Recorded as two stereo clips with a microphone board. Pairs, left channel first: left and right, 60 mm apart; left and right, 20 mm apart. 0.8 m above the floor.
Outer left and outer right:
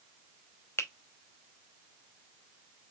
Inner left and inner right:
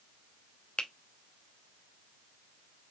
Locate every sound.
0.8 s a finger snap: 45° left (ahead or behind), 0.7 m